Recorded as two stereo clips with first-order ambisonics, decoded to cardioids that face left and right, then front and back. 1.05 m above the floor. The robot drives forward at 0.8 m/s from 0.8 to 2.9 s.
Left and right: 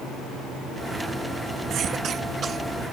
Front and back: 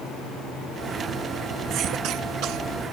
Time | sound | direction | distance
1.7 | a cough | 140° right | ?